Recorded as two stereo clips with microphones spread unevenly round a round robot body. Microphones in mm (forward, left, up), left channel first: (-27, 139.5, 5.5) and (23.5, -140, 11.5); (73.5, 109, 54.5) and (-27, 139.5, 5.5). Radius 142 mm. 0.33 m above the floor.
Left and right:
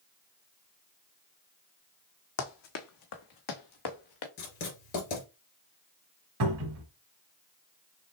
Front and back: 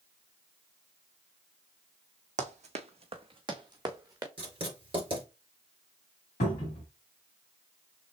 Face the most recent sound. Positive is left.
turn(degrees=-45)